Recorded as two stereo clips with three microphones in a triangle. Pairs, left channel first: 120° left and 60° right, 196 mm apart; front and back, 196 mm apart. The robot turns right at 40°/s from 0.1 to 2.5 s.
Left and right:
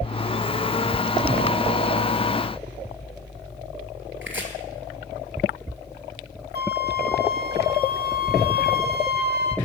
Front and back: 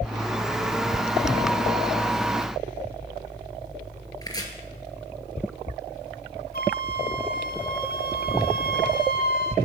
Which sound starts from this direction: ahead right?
A flute, at 6.5 s.